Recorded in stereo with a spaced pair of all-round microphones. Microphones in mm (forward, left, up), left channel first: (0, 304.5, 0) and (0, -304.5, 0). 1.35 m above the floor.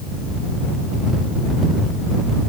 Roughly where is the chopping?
No chopping in this recording.